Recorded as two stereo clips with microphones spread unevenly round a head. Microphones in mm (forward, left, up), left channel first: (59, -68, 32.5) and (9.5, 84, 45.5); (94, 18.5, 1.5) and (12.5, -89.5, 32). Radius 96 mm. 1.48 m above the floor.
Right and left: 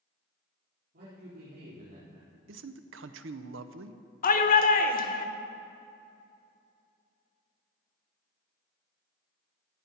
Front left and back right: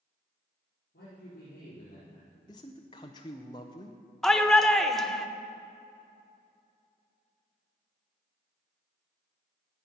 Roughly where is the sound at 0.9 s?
Left.